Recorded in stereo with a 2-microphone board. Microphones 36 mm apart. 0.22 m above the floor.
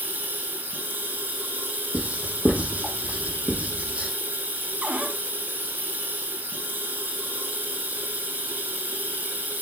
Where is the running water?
70° right (ahead or behind), 1.7 m.